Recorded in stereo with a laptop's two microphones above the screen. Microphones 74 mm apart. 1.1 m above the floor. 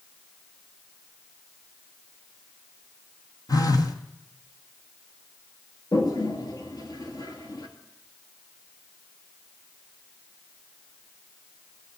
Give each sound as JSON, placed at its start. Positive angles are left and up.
{"t": 3.5, "sound": "a phone buzzing", "side_deg": 50, "distance_m": 1.3}
{"t": 5.9, "sound": "a toilet flushing", "side_deg": 55, "distance_m": 2.5}